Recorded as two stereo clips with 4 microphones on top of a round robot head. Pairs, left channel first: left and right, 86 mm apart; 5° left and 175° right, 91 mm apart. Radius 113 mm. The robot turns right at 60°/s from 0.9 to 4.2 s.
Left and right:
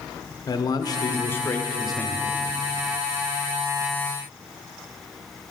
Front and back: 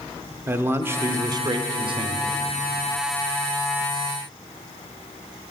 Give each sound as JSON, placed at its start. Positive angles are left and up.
{"t": 0.5, "sound": "a man speaking", "azimuth_deg": 125, "distance_m": 0.8}